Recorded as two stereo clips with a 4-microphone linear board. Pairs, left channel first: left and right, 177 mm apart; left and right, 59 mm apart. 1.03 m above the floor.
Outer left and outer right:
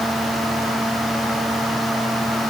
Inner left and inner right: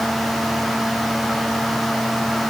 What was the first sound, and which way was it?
Only background noise.